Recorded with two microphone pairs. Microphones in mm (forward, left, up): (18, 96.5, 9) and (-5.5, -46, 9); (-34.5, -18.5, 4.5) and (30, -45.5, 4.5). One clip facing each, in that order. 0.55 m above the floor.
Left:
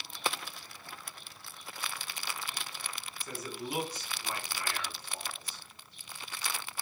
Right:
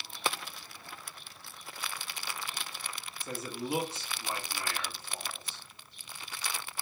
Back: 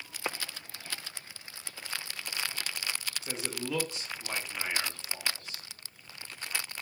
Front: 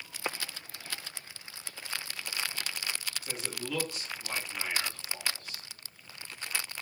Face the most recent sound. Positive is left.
turn(degrees=-150)